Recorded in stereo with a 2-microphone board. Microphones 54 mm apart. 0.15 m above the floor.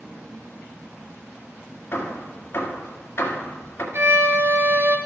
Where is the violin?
50° right (ahead or behind), 1.1 m.